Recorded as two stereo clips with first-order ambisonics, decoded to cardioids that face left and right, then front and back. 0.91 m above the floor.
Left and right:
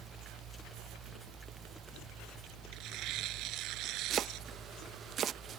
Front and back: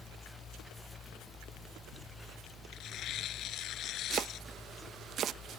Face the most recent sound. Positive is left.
turn(degrees=-140)